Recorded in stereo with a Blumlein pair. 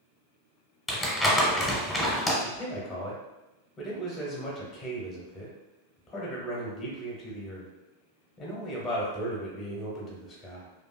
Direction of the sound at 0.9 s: 10° left.